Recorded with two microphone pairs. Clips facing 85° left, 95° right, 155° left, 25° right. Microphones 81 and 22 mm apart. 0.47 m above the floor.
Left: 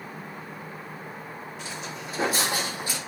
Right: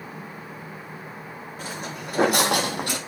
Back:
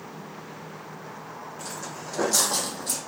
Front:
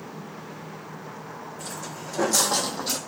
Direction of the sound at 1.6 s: 140° right.